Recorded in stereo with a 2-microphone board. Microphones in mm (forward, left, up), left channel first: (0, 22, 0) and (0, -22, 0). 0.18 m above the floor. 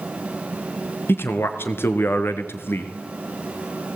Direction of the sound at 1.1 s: 60° left (ahead or behind).